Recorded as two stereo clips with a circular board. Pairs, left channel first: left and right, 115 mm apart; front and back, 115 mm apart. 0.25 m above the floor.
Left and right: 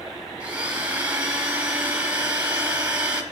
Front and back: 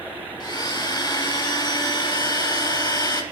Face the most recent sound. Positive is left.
turn(degrees=-20)